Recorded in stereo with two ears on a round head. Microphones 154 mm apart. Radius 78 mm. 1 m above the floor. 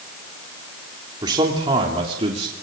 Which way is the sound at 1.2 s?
25° right (ahead or behind).